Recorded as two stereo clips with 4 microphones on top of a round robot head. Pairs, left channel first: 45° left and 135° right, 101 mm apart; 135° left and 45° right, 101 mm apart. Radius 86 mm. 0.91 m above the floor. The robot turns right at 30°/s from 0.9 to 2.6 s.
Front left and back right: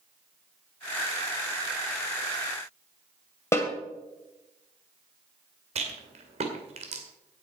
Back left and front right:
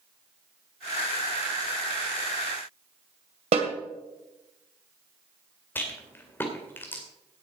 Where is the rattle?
155° right, 2.5 m.